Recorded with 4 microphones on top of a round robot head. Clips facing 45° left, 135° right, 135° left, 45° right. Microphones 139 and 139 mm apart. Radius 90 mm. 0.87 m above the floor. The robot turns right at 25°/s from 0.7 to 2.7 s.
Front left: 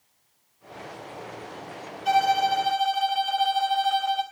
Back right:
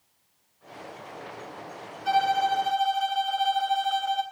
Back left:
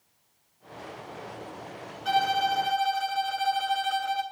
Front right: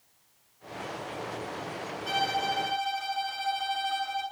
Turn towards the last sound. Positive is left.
turn(degrees=130)